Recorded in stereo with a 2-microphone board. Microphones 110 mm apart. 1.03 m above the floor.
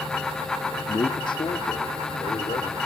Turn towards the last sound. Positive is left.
turn(degrees=65)  # may be behind; listen again after turning